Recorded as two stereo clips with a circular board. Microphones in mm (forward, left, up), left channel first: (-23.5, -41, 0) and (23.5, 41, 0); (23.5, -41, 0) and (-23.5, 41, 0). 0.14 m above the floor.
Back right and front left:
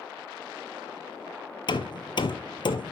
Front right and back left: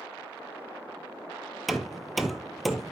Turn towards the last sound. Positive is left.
turn(degrees=-150)